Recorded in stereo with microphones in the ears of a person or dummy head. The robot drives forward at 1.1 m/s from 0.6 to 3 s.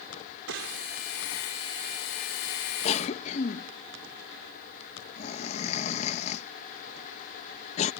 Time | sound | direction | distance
0.5 | a gunshot | 75° right (ahead or behind) | ?
2.9 | a cough | 35° left (ahead or behind) | ?